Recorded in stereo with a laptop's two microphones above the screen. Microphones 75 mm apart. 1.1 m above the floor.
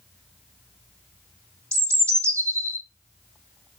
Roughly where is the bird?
Right.